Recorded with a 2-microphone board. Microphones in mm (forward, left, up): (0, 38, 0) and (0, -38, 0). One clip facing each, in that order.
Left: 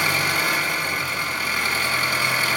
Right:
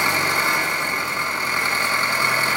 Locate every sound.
0.0 s an engine running: 25° right (ahead or behind), 1.3 m